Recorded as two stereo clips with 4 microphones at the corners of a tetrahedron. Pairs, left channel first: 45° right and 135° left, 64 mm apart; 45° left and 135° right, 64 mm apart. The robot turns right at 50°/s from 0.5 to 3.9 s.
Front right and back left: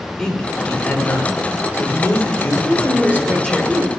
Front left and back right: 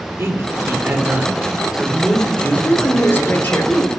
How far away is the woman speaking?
About 1.0 m.